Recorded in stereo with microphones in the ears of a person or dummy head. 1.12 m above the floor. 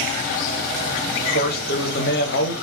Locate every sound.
1.2 s a man speaking: 50° left (ahead or behind), 0.7 m